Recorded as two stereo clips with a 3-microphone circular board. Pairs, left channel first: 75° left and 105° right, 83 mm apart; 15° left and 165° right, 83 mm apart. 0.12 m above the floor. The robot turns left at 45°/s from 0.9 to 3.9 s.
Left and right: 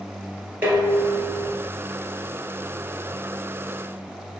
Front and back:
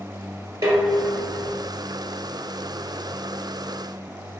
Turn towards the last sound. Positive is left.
turn(degrees=60)